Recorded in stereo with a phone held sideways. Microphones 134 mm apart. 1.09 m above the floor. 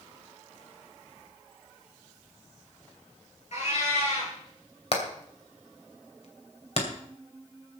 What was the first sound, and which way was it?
A cat meowing, 55° left (ahead or behind).